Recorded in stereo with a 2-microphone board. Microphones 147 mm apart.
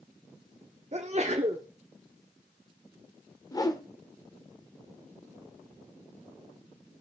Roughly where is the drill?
I don't hear a drill.